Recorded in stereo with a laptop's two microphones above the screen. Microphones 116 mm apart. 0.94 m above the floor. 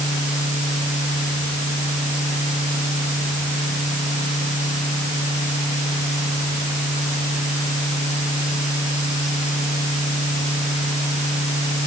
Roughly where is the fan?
Left.